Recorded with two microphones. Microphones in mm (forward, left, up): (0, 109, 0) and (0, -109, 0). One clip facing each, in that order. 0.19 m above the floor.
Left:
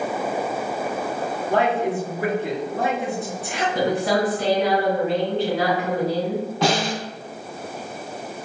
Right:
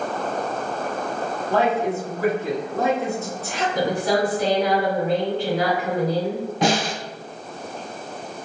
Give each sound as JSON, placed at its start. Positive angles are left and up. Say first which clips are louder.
{"t": 1.5, "sound": "a woman speaking", "louder": "even", "side_deg": 15, "distance_m": 1.5}
{"t": 3.8, "sound": "a woman speaking", "louder": "even", "side_deg": 20, "distance_m": 1.5}
{"t": 6.6, "sound": "a snare drum", "louder": "right 1 dB", "side_deg": -15, "distance_m": 1.4}